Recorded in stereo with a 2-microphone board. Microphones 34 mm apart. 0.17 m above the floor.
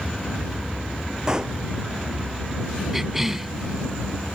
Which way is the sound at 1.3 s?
20° right (ahead or behind).